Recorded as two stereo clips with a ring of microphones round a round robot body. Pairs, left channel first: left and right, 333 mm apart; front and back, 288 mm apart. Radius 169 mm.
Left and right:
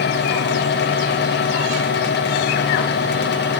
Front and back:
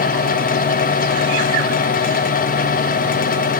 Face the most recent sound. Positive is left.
No sound to turn to.